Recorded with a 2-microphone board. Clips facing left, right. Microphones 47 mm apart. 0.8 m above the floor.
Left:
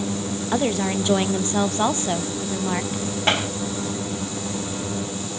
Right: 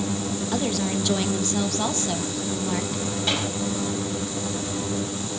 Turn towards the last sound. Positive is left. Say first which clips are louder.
# left 6 dB
turn(degrees=50)  # may be behind; listen again after turning